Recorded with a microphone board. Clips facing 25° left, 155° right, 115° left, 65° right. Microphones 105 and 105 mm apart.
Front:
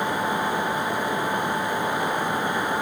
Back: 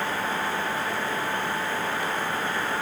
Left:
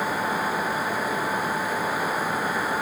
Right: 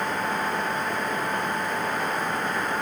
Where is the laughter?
I don't hear laughter.